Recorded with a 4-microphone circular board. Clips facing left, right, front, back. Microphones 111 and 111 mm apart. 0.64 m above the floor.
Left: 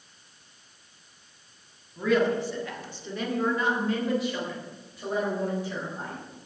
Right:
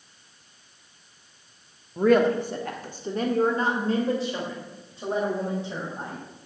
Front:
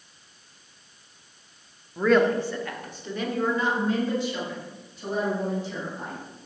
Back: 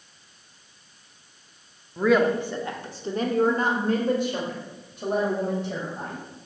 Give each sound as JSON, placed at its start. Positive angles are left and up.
{"t": 2.0, "sound": "a woman speaking", "azimuth_deg": -90, "distance_m": 1.2}